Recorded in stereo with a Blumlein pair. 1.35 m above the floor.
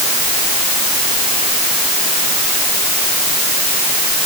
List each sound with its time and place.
Only background noise.